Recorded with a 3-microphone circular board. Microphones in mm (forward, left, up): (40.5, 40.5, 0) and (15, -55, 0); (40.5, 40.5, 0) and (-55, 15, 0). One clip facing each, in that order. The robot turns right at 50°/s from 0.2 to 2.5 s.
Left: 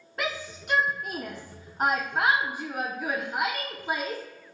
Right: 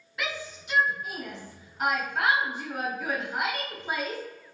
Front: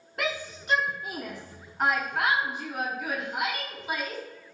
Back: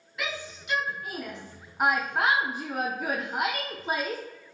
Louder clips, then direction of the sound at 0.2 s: Left 2 dB, front 4 dB; 40° left.